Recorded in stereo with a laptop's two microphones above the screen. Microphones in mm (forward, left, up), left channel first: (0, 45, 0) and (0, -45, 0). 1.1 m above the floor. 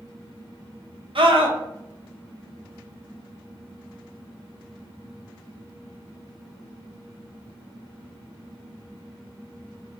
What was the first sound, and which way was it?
A scream, 70° right (ahead or behind).